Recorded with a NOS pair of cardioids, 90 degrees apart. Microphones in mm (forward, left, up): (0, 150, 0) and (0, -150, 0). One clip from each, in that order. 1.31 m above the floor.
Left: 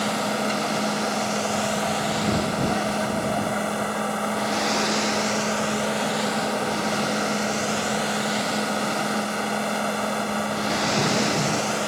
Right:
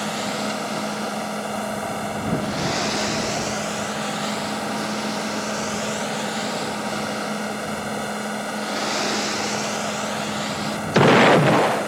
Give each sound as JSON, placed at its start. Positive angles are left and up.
{"t": 0.0, "sound": "a machine running", "azimuth_deg": 15}